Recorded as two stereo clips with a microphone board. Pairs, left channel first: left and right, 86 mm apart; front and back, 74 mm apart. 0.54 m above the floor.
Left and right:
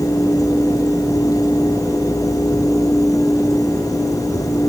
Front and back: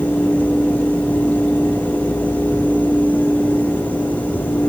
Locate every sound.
Only background noise.